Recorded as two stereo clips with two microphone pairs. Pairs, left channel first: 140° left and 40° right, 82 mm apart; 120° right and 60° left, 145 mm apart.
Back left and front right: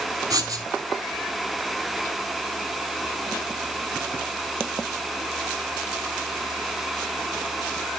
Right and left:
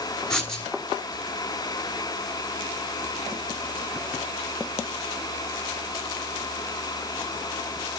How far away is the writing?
About 1.2 m.